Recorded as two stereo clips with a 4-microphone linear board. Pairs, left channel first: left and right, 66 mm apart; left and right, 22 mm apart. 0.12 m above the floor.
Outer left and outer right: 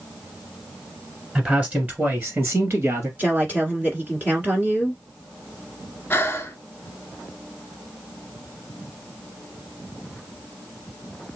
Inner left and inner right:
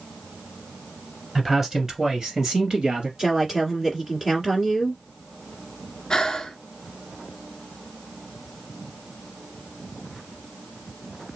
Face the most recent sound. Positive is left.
turn(degrees=30)  # may be behind; listen again after turning